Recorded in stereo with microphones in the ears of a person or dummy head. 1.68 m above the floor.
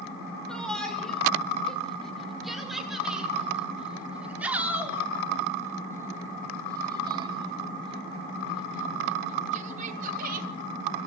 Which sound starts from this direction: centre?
A shout, at 0.5 s.